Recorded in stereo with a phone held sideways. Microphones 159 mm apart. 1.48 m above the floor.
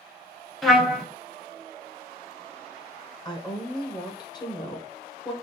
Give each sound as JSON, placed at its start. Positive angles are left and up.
{"t": 0.6, "sound": "a trumpet", "side_deg": 0, "distance_m": 0.8}
{"t": 3.2, "sound": "a woman speaking", "side_deg": 25, "distance_m": 1.0}